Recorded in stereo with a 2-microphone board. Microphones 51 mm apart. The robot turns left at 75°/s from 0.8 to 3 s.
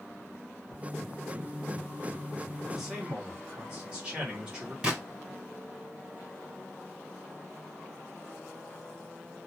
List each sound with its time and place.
2.6 s a man speaking: 5° left (ahead or behind), 2 m; by 4.7 s 25° right (ahead or behind), 2 m
4.8 s a gunshot: 20° right (ahead or behind), 2.5 m